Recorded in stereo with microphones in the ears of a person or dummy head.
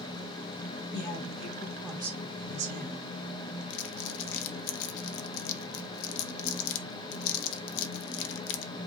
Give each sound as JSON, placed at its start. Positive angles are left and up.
{"t": 0.9, "sound": "a woman speaking", "side_deg": 55, "distance_m": 1.6}
{"t": 3.7, "sound": "crumpling", "side_deg": 70, "distance_m": 0.5}